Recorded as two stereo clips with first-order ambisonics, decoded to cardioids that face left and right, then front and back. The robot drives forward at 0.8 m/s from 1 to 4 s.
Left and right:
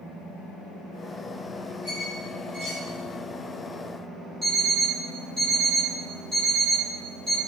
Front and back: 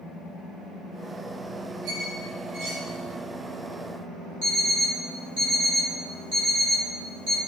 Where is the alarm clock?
170° right, 1.9 m.